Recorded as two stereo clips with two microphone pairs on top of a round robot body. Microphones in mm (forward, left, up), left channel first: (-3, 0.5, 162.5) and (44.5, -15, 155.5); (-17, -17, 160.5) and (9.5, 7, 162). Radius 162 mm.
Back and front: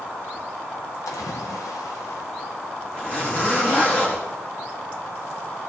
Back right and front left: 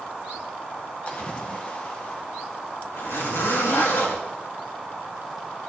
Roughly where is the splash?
Behind.